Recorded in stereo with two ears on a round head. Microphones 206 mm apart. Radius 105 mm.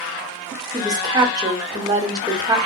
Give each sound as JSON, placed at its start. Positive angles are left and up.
{"t": 0.7, "sound": "a woman speaking", "side_deg": -15, "distance_m": 1.1}